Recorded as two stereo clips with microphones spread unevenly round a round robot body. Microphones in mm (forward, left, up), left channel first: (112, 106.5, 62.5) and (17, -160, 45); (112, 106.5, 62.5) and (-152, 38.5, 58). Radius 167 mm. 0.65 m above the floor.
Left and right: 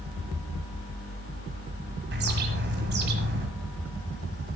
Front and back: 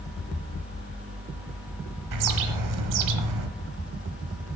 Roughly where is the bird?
Behind.